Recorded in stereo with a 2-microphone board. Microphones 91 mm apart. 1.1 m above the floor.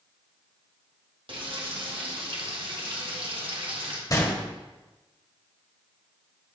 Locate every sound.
1.3 s frying: 65° right (ahead or behind), 1.7 m
4.1 s a gunshot: 40° left (ahead or behind), 1.6 m